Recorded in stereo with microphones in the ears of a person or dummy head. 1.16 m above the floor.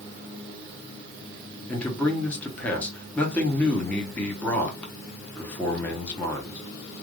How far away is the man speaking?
About 0.9 m.